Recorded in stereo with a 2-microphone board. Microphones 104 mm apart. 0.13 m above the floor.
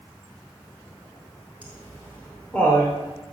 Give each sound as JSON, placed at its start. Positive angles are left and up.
{"t": 1.6, "sound": "laughter", "side_deg": 15, "distance_m": 2.0}